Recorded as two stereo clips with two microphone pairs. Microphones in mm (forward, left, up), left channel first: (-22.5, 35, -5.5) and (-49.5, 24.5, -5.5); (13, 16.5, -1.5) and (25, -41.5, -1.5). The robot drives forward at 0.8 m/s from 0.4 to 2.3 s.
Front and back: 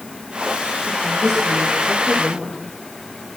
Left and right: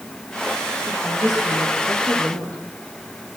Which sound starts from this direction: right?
A woman speaking, at 0.9 s.